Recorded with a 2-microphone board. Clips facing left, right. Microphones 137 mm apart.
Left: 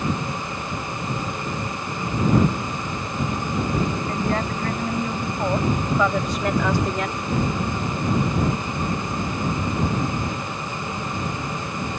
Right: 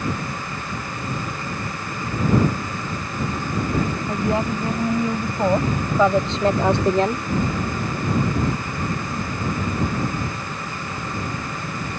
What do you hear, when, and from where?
4.1 s a woman speaking: 15° right (ahead or behind); by 7.3 s 40° right (ahead or behind)